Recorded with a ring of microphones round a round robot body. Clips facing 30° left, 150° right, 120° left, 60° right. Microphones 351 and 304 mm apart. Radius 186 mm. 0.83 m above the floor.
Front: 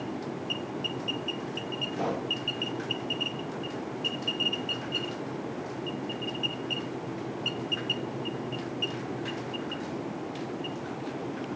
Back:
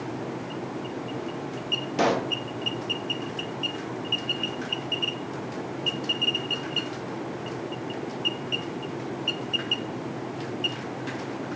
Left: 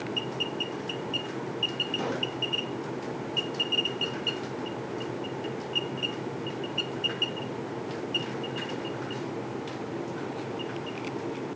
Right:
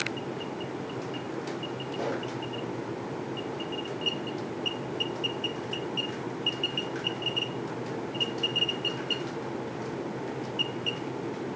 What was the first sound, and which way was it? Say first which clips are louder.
A pop: back 8 dB, even; 165° right.